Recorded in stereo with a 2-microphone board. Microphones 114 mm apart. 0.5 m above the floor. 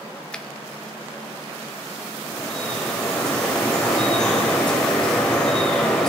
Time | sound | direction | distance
0.3 | a finger snap | 10° left (ahead or behind) | 0.8 m
2.3 | dripping | 5° left (ahead or behind) | 2.5 m